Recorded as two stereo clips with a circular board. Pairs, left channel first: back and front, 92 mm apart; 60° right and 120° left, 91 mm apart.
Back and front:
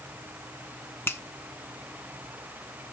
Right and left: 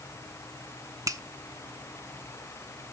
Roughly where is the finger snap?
Behind left.